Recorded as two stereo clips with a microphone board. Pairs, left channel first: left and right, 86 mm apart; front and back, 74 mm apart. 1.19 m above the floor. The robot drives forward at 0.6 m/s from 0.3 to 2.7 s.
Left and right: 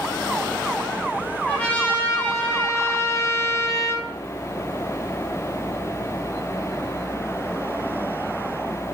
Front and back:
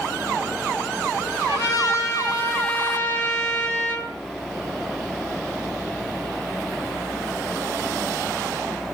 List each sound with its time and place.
1.5 s a trumpet: 20° left, 1.3 m; by 4.1 s 50° left, 0.7 m